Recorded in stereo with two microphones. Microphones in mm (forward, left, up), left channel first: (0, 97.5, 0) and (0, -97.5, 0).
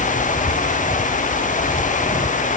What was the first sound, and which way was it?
Only background noise.